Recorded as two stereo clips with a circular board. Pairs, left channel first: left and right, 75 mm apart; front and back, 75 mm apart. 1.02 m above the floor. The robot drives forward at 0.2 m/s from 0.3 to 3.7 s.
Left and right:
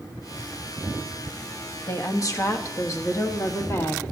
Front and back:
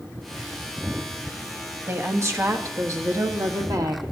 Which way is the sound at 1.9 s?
130° left.